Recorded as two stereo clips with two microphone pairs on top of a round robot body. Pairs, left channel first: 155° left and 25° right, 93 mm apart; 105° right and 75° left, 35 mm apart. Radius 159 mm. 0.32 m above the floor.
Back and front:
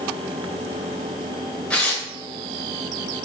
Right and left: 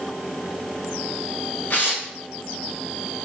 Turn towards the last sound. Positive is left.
turn(degrees=-125)